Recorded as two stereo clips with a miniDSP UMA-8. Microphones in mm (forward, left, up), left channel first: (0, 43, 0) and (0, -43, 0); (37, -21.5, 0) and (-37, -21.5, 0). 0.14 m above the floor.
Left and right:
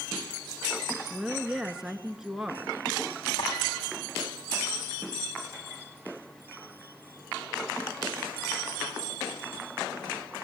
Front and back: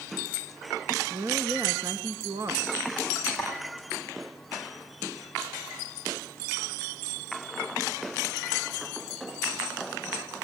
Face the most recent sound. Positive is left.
turn(degrees=90)